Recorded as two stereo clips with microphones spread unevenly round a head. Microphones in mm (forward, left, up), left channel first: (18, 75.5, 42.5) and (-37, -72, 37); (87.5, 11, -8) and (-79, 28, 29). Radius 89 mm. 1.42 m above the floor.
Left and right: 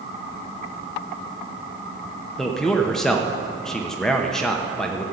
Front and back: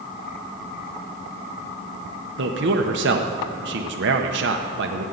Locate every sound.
2.4 s a man speaking: 155° left, 0.9 m